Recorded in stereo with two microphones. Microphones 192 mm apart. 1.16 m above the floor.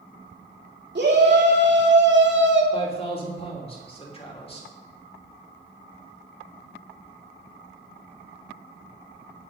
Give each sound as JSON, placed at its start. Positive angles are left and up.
{"t": 0.9, "sound": "a shout", "side_deg": -65, "distance_m": 2.5}
{"t": 2.7, "sound": "a man speaking", "side_deg": 30, "distance_m": 2.5}